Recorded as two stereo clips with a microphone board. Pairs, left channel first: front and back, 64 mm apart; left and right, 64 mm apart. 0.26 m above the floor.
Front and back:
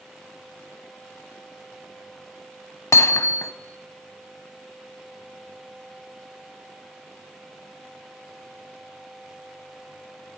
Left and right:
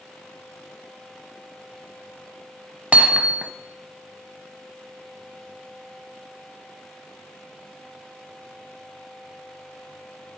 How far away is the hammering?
About 0.7 m.